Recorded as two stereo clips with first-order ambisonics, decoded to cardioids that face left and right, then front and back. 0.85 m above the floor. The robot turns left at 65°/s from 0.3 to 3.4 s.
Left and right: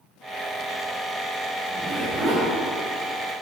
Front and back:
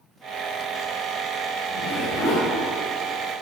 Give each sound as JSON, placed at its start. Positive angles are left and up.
{"t": 1.7, "sound": "a zipper", "azimuth_deg": 0, "distance_m": 3.5}